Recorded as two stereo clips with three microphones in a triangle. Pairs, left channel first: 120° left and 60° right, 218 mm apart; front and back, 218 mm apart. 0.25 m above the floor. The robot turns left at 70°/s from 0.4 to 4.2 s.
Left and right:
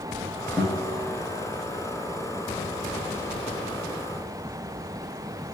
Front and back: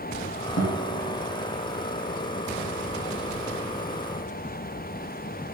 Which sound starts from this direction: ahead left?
A guitar, at 0.6 s.